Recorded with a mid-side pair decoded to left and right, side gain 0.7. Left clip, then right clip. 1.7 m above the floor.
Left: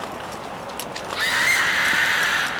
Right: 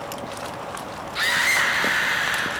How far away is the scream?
About 1.5 m.